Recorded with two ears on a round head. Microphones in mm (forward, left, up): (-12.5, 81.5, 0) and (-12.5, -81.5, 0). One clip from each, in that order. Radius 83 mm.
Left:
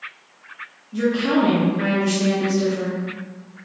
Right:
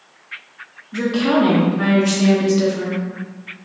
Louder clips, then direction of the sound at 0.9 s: Right 2 dB; 30° right (ahead or behind).